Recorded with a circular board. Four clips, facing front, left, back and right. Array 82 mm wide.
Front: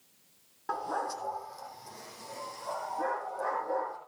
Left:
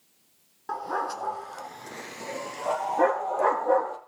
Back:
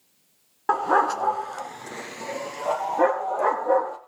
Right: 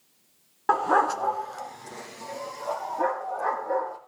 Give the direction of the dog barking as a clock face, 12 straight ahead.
4 o'clock.